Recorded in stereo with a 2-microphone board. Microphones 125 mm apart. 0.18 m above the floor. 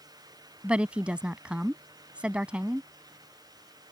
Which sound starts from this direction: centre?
A woman speaking, at 0.6 s.